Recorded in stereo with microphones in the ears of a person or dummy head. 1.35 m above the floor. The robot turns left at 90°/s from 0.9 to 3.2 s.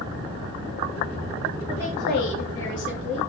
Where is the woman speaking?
170° left, 2.5 m; by 3.3 s 35° left, 2.5 m.